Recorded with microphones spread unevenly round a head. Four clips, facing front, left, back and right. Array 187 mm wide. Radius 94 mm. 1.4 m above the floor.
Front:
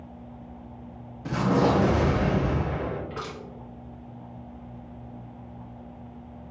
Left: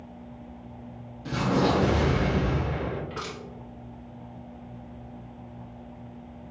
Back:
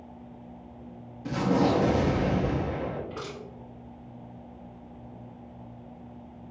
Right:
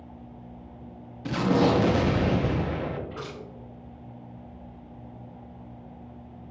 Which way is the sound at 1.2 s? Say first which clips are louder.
Right 2 dB, front 2 dB; 55° right.